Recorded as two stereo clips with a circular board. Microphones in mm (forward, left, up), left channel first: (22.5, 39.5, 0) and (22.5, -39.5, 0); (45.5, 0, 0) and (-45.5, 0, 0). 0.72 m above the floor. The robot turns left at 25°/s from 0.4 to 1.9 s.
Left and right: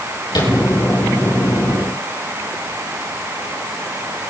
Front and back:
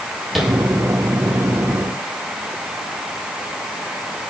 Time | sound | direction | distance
0.3 | tapping | 90° left | 5.5 m